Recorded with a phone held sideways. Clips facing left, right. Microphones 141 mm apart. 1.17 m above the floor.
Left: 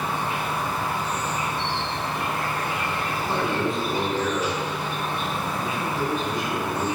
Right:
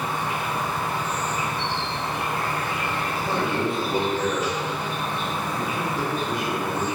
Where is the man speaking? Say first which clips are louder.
Even; 65° right (ahead or behind), 0.9 m.